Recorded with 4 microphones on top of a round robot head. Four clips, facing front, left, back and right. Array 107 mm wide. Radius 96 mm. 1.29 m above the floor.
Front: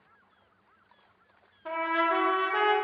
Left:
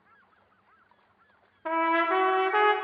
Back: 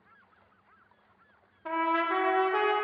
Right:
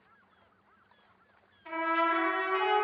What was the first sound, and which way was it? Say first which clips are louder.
A trumpet: left 4 dB, even; 100° left.